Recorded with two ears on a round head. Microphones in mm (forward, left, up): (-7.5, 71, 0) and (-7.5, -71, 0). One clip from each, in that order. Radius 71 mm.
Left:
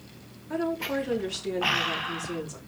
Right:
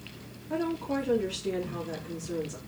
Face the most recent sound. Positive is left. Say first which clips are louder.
# left 2 dB
turn(degrees=35)  # may be behind; listen again after turning